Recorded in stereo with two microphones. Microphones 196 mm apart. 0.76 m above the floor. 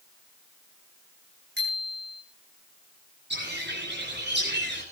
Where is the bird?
65° right (ahead or behind), 9 m.